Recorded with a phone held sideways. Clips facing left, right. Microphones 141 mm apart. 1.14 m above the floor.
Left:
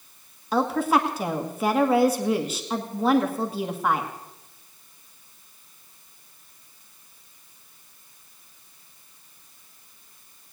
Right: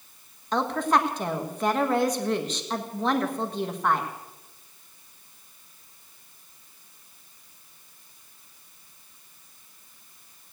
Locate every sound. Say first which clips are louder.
0.5 s a woman speaking: left 2 dB; 5° left (ahead or behind), 1.5 m